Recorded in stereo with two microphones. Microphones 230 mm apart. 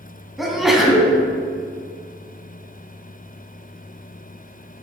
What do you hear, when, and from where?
0.4 s a sneeze: centre (ahead or behind), 1.9 m